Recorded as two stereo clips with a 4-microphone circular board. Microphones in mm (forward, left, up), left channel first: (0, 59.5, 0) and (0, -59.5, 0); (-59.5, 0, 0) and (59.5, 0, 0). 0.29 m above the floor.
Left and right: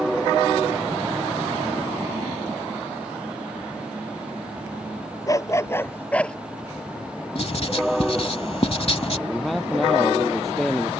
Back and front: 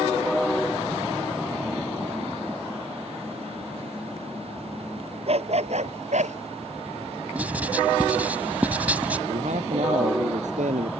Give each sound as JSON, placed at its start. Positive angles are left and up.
{"t": 5.3, "sound": "a dog barking", "azimuth_deg": 30}
{"t": 7.3, "sound": "writing", "azimuth_deg": 75}
{"t": 9.3, "sound": "a man speaking", "azimuth_deg": 0}